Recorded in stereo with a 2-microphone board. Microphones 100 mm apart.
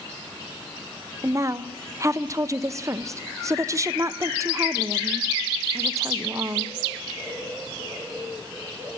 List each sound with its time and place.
1.2 s a woman speaking: 30° right (ahead or behind), 0.5 m